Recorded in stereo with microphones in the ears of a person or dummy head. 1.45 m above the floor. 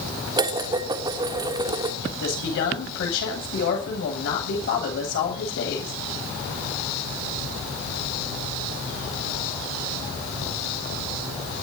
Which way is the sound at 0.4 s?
20° right (ahead or behind).